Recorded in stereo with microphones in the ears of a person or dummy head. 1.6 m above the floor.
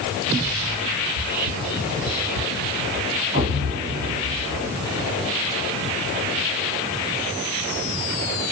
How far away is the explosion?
About 2 m.